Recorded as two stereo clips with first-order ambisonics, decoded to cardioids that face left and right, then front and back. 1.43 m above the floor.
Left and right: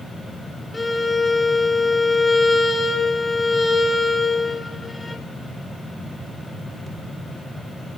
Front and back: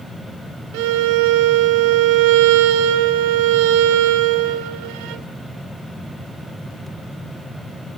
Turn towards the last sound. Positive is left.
turn(degrees=170)